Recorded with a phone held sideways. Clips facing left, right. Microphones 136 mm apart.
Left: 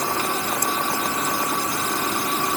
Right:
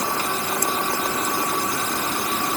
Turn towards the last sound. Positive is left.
No sound to turn to.